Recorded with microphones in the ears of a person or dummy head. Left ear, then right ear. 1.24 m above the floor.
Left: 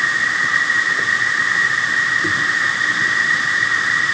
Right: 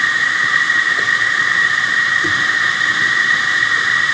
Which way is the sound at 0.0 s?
35° right (ahead or behind).